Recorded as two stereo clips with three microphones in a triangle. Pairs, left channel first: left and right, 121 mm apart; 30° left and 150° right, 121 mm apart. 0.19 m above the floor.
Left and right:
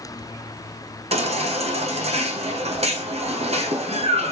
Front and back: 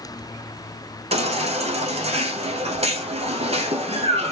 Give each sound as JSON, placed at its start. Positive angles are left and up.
{"t": 1.1, "sound": "a baby crying", "azimuth_deg": -120, "distance_m": 1.0}